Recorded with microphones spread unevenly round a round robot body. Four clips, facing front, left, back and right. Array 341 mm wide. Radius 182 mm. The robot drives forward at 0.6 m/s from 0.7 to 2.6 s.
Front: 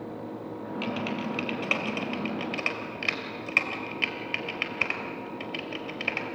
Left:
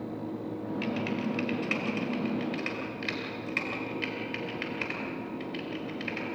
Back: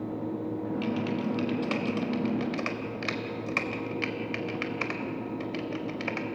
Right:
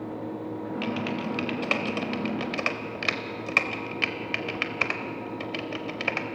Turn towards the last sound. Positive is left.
turn(degrees=-80)